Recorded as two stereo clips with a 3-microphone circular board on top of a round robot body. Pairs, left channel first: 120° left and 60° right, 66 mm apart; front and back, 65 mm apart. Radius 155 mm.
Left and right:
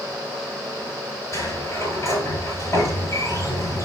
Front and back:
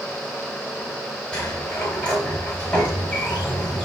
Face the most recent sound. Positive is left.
turn(degrees=75)